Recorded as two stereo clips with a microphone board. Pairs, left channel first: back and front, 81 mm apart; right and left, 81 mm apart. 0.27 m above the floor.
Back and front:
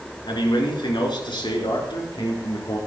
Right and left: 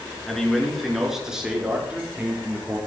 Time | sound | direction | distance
0.3 | a man speaking | 175° right | 4 m